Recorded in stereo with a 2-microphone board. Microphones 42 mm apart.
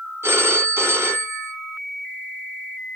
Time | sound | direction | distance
0.2 | a phone ringing | 75° right (ahead or behind) | 3 m